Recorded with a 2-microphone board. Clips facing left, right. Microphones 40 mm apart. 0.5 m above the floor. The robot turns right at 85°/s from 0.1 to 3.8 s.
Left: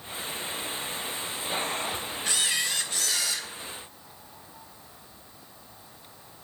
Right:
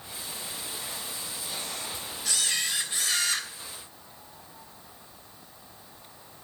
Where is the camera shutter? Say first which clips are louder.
Left 1 dB; 145° left, 3 m; by 3.5 s 110° right, 3 m.